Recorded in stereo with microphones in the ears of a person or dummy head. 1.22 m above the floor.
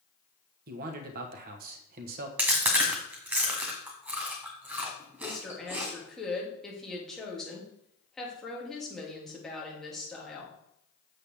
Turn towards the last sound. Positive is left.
turn(degrees=5)  # may be behind; listen again after turning